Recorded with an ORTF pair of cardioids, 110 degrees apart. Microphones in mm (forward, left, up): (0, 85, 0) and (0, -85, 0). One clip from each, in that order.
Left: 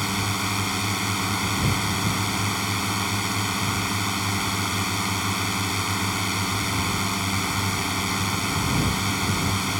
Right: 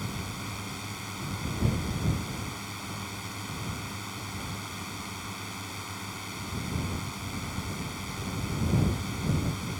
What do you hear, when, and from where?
0.0 s a drone: 70° left